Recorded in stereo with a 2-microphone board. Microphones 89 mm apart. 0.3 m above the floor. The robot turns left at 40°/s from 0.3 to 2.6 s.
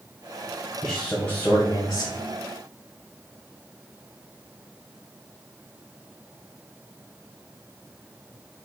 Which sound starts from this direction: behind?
A man speaking, at 0.8 s.